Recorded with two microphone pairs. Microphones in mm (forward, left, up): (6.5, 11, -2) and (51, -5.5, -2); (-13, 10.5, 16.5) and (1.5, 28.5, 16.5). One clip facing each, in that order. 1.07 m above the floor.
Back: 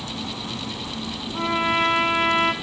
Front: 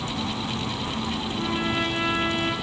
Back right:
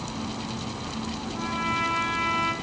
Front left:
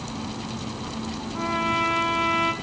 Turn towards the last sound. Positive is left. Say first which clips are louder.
# back 6 dB, front left 4 dB
turn(degrees=120)